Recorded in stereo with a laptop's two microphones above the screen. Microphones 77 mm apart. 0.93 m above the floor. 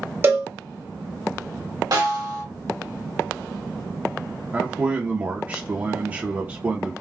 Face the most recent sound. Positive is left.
turn(degrees=-25)  # may be behind; listen again after turning